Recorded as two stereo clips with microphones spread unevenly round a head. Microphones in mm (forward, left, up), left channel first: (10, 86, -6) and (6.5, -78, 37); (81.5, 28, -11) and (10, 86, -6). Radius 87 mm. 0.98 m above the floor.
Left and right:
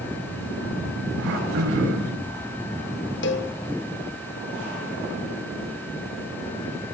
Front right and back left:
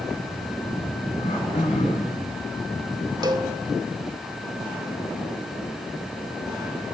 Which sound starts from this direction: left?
A cowbell, at 3.2 s.